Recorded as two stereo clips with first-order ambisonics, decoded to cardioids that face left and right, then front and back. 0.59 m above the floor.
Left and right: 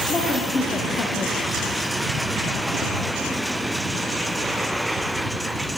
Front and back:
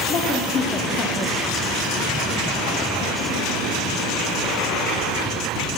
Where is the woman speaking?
30° left, 1.4 m; by 1.7 s 145° left, 1.0 m.